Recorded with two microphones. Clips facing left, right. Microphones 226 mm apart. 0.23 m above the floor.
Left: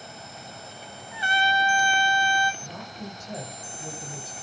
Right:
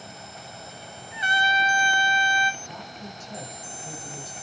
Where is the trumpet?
20° right (ahead or behind), 0.9 m.